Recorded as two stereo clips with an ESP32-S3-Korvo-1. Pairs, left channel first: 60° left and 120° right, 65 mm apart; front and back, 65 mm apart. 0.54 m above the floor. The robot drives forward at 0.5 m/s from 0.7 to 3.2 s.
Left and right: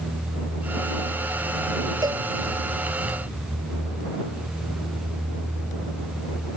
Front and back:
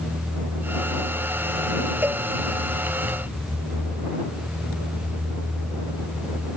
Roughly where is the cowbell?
Behind right.